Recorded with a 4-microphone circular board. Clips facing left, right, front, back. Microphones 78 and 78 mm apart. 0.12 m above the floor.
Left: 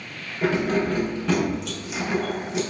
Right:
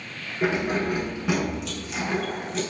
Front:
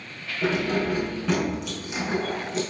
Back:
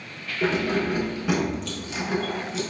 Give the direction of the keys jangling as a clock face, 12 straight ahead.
5 o'clock.